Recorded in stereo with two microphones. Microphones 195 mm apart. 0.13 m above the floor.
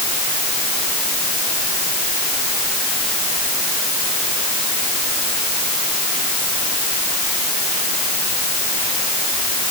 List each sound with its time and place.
Only background noise.